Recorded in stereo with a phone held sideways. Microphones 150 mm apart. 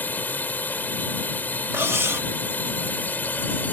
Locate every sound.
0.0 s a drone: 10° left (ahead or behind)
1.7 s cutlery clinking: 15° right (ahead or behind)